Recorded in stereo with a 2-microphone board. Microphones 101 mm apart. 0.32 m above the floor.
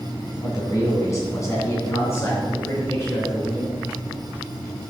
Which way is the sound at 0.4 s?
35° left (ahead or behind).